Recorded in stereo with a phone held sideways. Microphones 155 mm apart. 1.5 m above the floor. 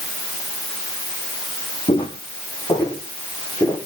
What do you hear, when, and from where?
1.9 s footsteps: 35° left (ahead or behind), 4.5 m; by 3.8 s 20° left (ahead or behind), 7 m